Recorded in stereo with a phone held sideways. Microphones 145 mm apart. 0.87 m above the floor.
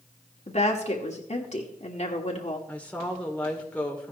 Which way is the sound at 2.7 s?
10° left (ahead or behind).